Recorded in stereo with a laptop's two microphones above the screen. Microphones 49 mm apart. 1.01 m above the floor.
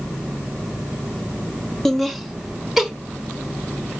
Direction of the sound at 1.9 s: 5° left (ahead or behind).